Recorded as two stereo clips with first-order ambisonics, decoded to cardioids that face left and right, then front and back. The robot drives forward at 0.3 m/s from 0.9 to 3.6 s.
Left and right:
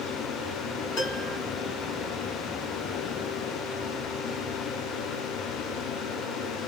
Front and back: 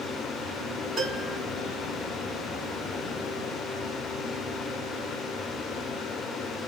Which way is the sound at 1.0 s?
105° left.